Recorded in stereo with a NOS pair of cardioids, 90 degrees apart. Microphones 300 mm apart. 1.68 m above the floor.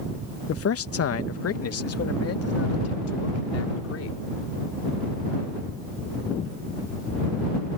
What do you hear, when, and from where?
0.5 s a man speaking: 50° left; by 4.2 s 55° left